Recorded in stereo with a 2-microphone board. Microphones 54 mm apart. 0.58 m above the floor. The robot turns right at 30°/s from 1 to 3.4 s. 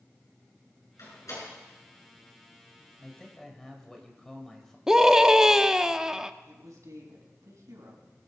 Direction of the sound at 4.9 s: 10° right (ahead or behind).